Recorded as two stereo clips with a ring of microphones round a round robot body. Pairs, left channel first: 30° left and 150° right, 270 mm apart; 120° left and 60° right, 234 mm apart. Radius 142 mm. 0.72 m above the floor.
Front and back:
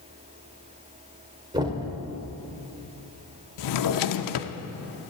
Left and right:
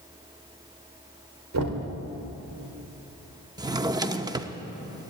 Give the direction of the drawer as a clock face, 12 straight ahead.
11 o'clock.